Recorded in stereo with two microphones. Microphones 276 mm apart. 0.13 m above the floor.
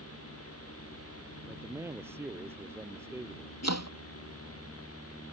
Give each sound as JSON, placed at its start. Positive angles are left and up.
{"t": 1.5, "sound": "a man speaking", "side_deg": -10}
{"t": 3.6, "sound": "chopping", "side_deg": 65}